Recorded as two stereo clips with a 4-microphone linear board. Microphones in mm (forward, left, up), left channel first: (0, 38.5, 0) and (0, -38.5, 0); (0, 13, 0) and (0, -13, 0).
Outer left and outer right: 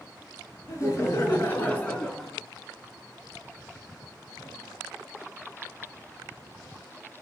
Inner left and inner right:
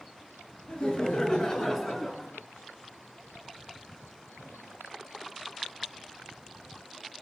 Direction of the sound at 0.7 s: 40° left (ahead or behind).